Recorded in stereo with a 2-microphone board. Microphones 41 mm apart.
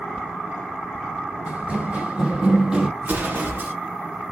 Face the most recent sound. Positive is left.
turn(degrees=-45)  # may be behind; listen again after turning